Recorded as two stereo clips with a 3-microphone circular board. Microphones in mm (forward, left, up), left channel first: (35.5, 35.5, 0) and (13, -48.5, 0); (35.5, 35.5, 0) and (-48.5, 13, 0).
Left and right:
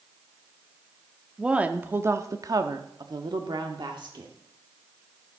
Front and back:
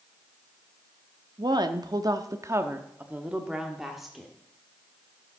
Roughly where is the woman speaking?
Behind.